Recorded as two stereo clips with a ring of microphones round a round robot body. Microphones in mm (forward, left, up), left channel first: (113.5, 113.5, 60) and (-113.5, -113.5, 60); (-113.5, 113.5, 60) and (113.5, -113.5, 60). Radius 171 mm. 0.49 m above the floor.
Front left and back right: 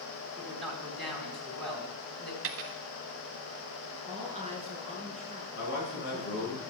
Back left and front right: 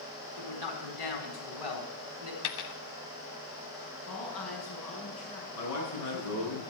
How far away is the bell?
No bell in this recording.